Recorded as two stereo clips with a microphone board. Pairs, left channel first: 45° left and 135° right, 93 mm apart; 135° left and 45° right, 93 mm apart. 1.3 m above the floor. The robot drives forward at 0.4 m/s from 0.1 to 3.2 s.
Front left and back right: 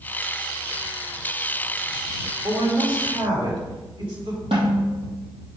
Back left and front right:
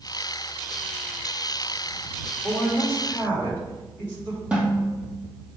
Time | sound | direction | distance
2.4 | a woman speaking | 150° right | 2.5 m
4.5 | a snare drum | 125° right | 2.5 m